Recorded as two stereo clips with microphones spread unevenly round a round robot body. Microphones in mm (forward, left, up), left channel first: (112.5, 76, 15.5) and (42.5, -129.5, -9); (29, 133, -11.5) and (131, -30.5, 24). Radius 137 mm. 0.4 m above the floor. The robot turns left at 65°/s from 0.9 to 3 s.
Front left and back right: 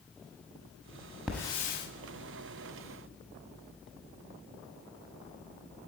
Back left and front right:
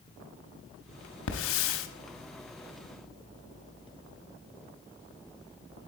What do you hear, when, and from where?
1.3 s a hiss: 165° left, 0.7 m; by 1.9 s 125° left, 0.7 m